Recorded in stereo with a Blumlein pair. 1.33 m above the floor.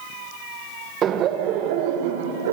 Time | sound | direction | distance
1.0 | laughter | 25° right | 1.5 m